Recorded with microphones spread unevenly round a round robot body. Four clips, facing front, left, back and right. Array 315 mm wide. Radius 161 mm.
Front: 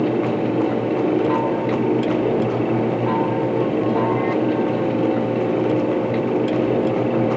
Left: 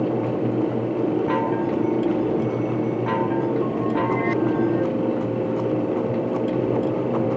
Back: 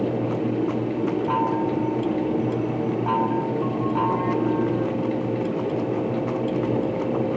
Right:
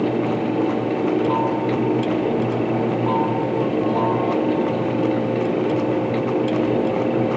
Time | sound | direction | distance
1.3 | a chime | 100° left | ?